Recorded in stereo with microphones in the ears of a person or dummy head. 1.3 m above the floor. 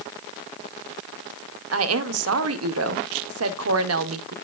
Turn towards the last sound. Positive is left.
turn(degrees=-75)  # may be behind; listen again after turning